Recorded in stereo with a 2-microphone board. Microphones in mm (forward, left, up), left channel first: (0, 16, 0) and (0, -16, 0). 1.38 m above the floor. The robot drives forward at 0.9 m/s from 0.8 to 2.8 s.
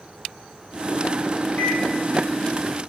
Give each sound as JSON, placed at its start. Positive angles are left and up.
{"t": 1.6, "sound": "a microwave", "side_deg": 85, "distance_m": 4.0}